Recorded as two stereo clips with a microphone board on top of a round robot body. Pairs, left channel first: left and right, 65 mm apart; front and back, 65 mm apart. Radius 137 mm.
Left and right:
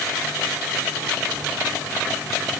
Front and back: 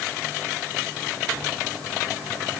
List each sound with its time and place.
Only background noise.